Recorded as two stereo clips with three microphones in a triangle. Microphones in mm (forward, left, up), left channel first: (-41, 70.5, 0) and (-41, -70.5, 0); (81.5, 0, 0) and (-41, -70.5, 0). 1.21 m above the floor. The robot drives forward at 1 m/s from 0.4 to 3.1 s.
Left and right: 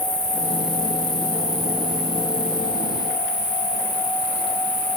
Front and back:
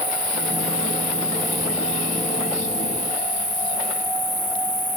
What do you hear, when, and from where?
0.0 s an insect: 80° left, 1.8 m; by 5.0 s 150° left, 3 m